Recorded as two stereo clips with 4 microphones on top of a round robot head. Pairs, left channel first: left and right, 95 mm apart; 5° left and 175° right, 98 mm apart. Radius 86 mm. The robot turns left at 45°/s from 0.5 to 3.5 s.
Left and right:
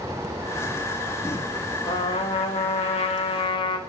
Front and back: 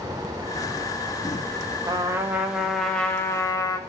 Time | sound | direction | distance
1.9 | a trumpet | 135° left | 1.9 m